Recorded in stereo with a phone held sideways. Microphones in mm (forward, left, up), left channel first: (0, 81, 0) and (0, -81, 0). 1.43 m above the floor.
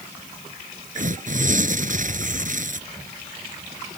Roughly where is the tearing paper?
Right.